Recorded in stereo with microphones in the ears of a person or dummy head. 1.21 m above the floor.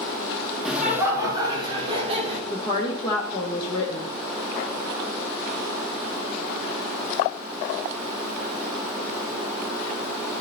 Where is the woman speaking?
30° left (ahead or behind), 0.9 m.